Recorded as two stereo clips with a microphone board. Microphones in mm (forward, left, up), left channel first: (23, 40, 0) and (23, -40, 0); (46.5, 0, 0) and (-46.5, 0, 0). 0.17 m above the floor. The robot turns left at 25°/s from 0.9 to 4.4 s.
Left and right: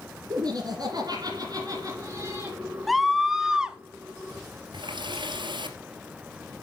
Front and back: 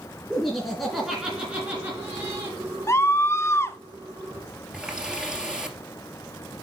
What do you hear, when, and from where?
0.3 s laughter: 90° right, 2.5 m; by 2.6 s 130° right, 2.5 m
2.9 s a scream: straight ahead, 1.2 m; by 3.8 s 20° right, 1.2 m
4.7 s a running tap: 100° right, 2.5 m